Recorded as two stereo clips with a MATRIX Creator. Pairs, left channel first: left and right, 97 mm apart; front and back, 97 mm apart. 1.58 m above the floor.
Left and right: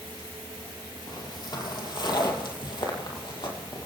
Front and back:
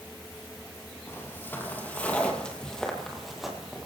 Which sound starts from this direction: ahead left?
Footsteps, at 1.1 s.